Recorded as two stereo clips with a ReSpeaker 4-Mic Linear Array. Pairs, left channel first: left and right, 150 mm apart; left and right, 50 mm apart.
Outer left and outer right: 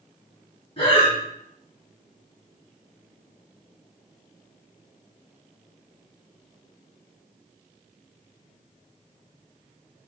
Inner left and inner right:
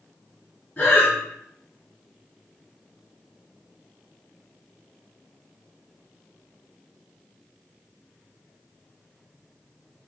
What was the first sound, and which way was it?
Breathing, 35° left (ahead or behind).